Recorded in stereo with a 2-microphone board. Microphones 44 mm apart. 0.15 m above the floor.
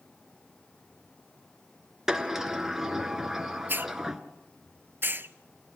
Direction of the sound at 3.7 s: 55° right (ahead or behind).